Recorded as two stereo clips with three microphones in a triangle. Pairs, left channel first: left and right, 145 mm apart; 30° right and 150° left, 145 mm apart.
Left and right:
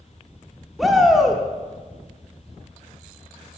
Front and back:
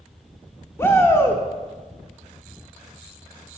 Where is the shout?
5° right, 0.8 m.